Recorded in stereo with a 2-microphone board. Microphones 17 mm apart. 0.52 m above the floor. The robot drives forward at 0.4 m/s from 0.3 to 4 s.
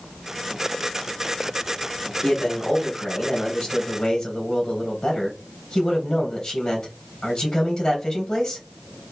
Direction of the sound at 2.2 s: 70° left (ahead or behind).